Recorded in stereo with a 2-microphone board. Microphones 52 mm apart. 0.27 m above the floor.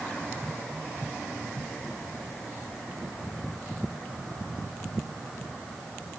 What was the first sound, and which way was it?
Only background noise.